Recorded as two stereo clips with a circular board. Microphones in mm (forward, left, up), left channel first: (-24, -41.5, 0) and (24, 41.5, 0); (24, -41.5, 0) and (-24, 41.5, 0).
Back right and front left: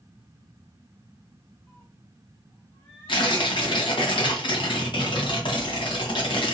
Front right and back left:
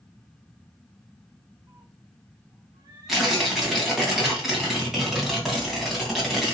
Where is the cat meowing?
170° left, 2 m.